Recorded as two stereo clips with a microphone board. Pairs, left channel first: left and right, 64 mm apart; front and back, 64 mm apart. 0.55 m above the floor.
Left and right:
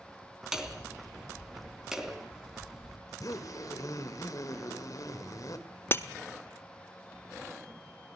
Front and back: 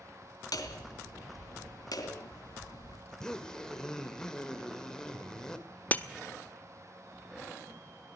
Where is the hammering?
10° right, 3 m.